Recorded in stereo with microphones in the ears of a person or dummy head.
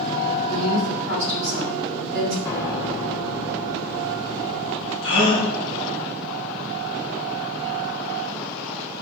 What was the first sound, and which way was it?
A woman speaking, 80° right.